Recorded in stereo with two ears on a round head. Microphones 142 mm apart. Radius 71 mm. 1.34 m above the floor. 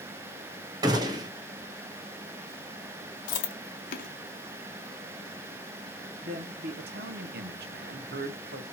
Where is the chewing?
55° left (ahead or behind), 0.9 m.